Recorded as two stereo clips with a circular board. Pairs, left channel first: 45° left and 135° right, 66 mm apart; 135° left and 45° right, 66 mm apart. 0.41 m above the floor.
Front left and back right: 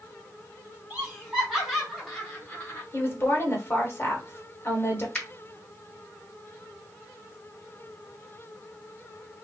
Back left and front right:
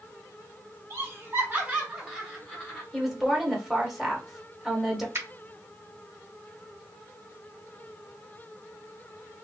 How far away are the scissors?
I don't hear scissors.